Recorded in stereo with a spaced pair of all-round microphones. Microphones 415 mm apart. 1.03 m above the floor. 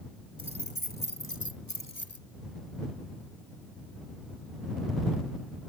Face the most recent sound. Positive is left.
turn(degrees=40)  # may be behind; listen again after turning